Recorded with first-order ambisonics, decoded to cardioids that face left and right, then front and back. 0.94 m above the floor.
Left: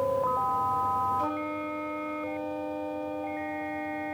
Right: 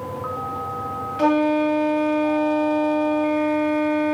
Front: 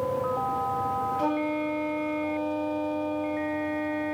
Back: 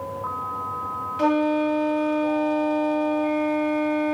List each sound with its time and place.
1.2 s a flute: 115° right